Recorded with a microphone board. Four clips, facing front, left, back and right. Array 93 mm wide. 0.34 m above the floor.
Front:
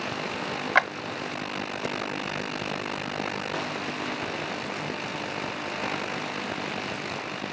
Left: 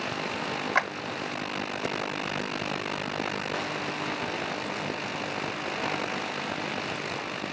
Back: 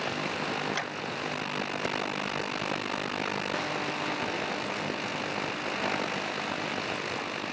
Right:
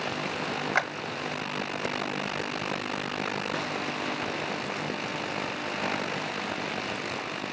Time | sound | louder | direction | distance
0.8 | a clap | left 1 dB, front 12 dB | straight ahead | 1.4 m